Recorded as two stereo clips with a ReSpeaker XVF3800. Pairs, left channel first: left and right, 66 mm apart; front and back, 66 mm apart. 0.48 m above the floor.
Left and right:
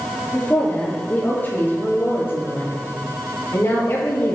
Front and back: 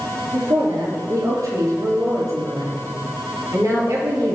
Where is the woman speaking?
155° left, 6.5 m; by 4.4 s 140° left, 9 m.